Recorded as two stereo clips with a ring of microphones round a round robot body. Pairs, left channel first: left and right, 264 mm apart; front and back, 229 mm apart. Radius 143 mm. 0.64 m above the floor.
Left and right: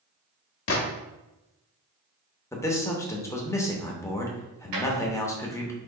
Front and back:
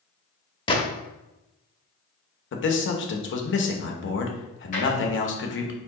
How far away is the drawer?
About 1.3 m.